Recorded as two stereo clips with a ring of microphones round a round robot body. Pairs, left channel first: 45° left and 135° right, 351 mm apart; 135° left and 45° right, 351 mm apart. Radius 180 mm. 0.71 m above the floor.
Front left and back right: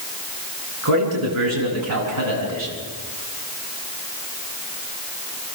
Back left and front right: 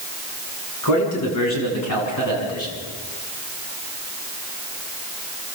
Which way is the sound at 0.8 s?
175° left.